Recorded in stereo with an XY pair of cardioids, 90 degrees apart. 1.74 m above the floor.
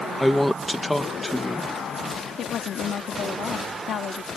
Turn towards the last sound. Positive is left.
turn(degrees=65)